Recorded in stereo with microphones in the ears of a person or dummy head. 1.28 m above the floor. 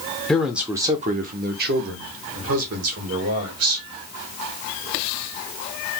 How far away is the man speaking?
About 0.6 m.